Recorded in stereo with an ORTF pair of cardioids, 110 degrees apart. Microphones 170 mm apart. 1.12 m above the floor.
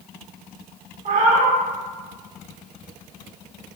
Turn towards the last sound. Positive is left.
turn(degrees=-50)